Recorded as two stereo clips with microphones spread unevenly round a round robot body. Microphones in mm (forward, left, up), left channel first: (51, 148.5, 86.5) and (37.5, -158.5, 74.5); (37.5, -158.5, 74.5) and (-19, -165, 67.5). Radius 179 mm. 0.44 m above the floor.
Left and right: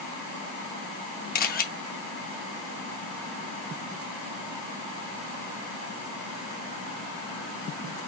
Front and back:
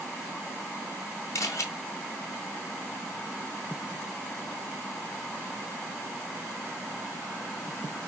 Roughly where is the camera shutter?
Ahead left.